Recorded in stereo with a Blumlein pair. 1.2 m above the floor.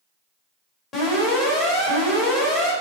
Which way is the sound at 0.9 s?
30° left.